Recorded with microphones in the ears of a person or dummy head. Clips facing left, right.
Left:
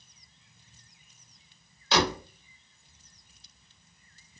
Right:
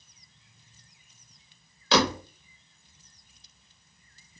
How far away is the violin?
I don't hear a violin.